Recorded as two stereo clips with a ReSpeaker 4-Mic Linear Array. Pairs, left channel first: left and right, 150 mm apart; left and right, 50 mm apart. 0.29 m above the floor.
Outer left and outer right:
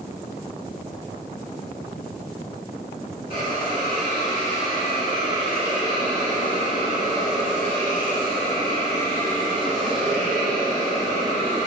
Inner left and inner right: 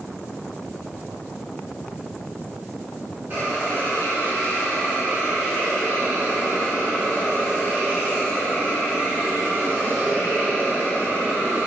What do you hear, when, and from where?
3.3 s a hiss: 35° right (ahead or behind), 1.6 m